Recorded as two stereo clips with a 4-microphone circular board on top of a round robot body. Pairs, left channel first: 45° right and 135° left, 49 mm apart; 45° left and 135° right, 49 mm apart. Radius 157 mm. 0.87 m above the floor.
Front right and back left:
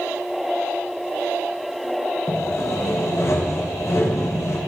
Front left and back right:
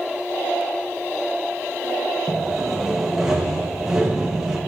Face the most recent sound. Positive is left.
turn(degrees=-55)